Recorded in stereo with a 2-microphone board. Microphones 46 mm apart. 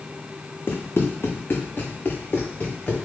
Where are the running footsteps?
55° left (ahead or behind), 1.0 m; by 3.0 s 30° left (ahead or behind), 1.9 m.